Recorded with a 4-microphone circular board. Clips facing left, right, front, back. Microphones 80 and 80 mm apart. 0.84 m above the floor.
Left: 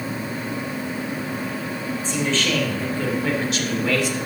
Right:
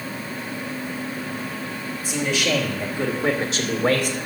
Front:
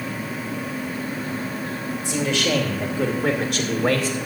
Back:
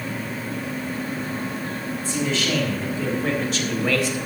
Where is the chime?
No chime in this recording.